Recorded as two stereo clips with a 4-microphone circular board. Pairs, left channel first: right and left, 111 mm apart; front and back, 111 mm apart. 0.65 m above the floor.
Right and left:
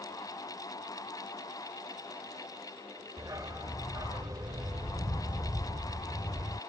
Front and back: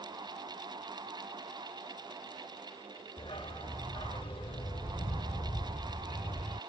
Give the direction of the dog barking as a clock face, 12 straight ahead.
11 o'clock.